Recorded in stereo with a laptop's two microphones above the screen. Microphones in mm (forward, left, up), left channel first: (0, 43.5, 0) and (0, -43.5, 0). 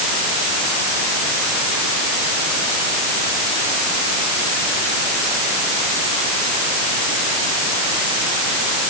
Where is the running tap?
No running tap in this recording.